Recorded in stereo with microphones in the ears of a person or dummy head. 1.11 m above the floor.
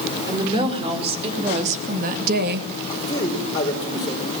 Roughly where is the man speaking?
Centre.